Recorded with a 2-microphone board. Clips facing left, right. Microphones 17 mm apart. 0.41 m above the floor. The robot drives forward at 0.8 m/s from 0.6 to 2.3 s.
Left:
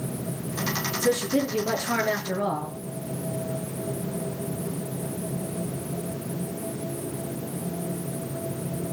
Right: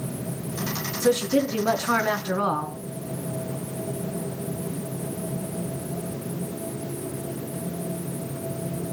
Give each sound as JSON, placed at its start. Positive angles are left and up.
{"t": 1.0, "sound": "a woman speaking", "side_deg": -70, "distance_m": 4.5}